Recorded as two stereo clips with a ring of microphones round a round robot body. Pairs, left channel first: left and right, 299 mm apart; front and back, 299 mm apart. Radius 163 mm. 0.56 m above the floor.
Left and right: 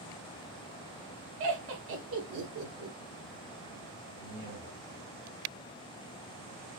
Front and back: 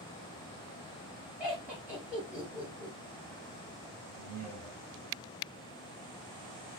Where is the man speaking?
165° right, 2.5 m.